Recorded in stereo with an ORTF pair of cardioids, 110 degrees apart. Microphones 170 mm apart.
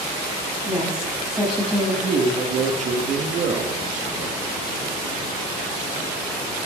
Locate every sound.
0.7 s a woman speaking: straight ahead, 5.5 m
2.0 s a man speaking: 45° right, 1.2 m